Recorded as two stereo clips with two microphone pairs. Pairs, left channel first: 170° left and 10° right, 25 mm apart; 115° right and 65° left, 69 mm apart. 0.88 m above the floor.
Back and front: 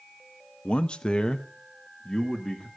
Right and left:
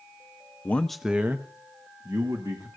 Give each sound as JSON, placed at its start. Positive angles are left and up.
{"t": 0.7, "sound": "a man speaking", "azimuth_deg": -170, "distance_m": 0.6}